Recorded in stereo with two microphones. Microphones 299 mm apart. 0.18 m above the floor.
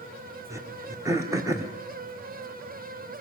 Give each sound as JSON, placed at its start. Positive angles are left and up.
{"t": 0.5, "sound": "throat clearing", "side_deg": -10, "distance_m": 2.0}